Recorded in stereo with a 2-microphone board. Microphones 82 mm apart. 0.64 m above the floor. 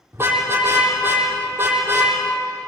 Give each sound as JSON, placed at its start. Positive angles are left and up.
{"t": 0.1, "sound": "a car horn", "side_deg": -30, "distance_m": 8.0}